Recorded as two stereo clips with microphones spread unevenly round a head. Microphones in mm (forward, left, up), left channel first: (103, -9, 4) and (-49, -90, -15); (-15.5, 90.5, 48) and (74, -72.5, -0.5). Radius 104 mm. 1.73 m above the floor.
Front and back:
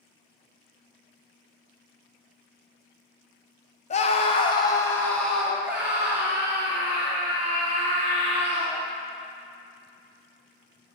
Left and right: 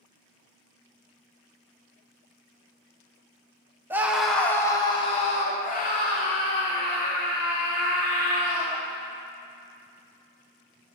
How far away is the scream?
About 0.8 m.